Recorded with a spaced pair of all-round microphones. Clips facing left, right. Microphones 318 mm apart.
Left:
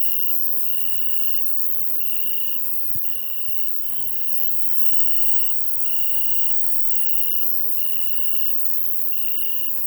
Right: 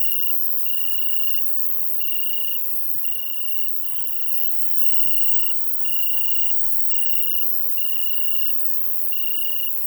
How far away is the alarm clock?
I don't hear an alarm clock.